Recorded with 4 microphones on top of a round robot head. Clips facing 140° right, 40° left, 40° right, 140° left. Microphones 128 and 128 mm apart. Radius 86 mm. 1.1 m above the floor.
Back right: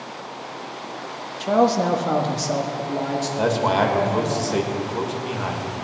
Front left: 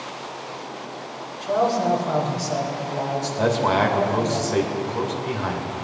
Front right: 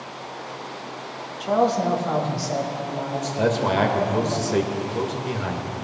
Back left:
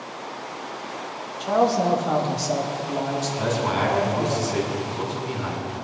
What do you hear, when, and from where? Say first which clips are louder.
1.4 s a man speaking: back right 3 dB, even; 125° right, 1.2 m; by 4.4 s 175° right, 3 m
3.4 s a man speaking: even, front right 5 dB; 60° right, 1.9 m